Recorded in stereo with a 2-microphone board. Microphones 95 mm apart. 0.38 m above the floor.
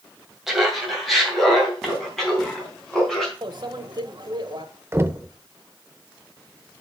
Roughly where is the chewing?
I don't hear chewing.